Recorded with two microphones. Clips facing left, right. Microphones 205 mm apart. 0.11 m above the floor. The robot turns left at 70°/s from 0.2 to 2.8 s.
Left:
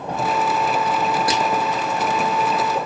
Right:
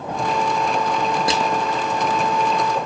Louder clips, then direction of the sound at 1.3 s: Even; 25° right (ahead or behind).